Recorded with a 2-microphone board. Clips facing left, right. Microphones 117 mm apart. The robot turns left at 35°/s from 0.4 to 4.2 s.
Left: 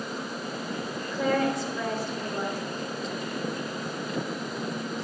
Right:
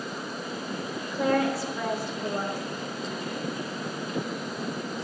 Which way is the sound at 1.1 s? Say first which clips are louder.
Right 1 dB; centre (ahead or behind).